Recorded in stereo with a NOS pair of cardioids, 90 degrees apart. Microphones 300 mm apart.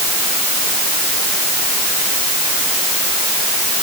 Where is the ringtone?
No ringtone in this recording.